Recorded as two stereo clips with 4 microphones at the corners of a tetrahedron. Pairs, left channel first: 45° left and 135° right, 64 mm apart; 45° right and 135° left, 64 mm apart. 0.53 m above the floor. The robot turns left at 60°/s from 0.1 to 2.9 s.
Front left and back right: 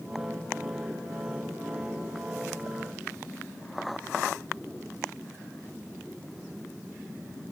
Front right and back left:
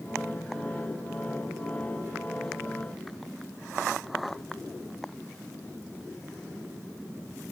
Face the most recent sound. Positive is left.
No sound to turn to.